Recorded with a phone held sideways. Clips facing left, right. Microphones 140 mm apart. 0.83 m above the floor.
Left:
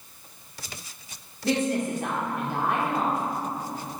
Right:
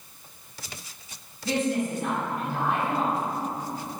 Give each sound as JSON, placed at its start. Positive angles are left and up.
{"t": 1.4, "sound": "a woman speaking", "side_deg": 65, "distance_m": 2.5}